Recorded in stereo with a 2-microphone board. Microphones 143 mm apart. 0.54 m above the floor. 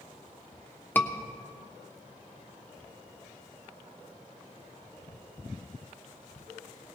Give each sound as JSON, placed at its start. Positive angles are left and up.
{"t": 0.9, "sound": "a scream", "side_deg": 15, "distance_m": 1.1}